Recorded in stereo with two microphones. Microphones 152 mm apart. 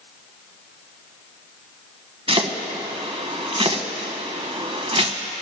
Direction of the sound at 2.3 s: 40° right (ahead or behind).